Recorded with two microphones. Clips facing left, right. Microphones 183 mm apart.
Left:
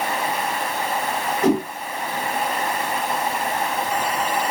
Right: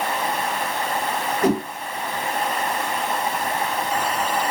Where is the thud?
I don't hear a thud.